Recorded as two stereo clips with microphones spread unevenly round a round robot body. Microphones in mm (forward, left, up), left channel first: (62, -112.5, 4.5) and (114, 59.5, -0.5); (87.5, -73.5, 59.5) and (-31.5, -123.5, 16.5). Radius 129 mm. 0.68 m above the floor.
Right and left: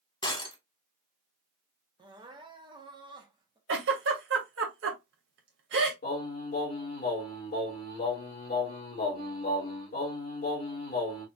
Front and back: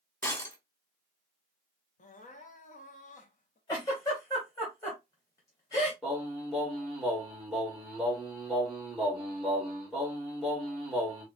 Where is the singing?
85° right, 2 m.